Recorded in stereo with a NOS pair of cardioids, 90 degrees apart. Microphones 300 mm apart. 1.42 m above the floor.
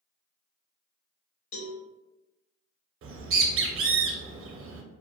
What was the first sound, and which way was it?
A cowbell, 65° left.